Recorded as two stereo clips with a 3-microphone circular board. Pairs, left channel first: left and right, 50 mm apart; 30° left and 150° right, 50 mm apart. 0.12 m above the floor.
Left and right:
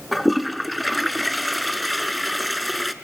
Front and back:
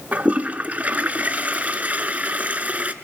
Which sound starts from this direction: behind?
A toilet flushing, at 0.1 s.